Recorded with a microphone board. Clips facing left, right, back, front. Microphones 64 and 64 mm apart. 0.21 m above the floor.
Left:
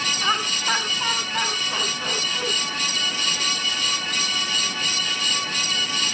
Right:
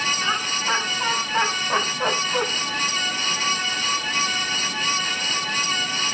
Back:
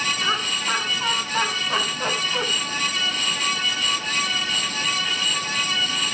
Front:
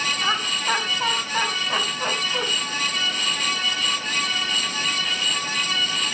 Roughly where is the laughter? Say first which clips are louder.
Left 1 dB, front 1 dB; ahead left.